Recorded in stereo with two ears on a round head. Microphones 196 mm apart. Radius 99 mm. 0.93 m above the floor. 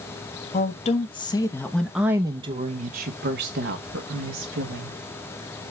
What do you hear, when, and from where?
0.5 s a woman speaking: 35° left (ahead or behind), 1.1 m; by 5.0 s 65° right (ahead or behind), 1.6 m